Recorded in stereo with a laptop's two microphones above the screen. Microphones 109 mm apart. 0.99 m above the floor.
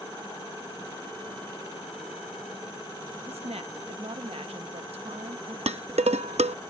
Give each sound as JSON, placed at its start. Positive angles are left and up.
{"t": 3.3, "sound": "a woman speaking", "side_deg": -65}
{"t": 5.7, "sound": "dishes clattering", "side_deg": -75}